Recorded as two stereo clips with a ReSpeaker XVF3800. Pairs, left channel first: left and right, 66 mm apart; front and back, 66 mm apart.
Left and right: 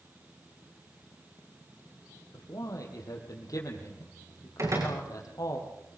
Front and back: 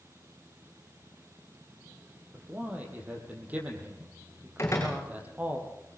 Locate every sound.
2.3 s a man speaking: 115° left, 5 m
4.6 s a door slam: 50° right, 7.5 m